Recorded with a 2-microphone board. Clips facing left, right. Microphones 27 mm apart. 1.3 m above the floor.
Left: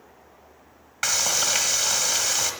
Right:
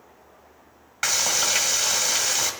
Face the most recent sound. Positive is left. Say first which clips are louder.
# right 1 dB
turn(degrees=-5)  # may be behind; listen again after turning